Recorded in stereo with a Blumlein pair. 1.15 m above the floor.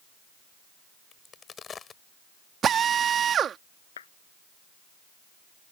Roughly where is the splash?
No splash in this recording.